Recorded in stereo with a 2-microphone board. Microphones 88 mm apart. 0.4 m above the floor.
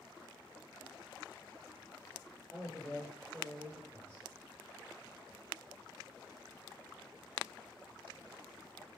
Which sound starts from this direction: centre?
A man speaking, at 2.5 s.